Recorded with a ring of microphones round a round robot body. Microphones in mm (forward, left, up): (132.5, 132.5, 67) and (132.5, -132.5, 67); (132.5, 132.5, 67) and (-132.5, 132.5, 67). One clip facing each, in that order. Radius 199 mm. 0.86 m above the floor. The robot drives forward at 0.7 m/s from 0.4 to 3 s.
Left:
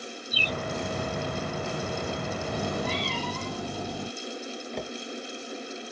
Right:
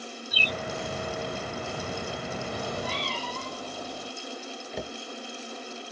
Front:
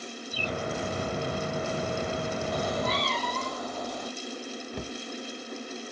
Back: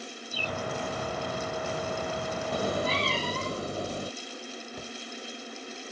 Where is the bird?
55° right; by 0.6 s 65° right.